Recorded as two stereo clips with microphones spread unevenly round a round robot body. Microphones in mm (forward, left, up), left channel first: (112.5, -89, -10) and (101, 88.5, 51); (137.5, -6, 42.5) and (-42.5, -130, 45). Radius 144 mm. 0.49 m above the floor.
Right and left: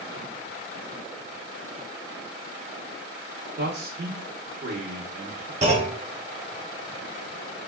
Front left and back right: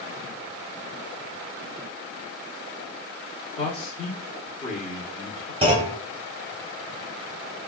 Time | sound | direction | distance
3.6 | a man speaking | 70° left | 0.9 m
5.6 | a clunk | 160° left | 0.9 m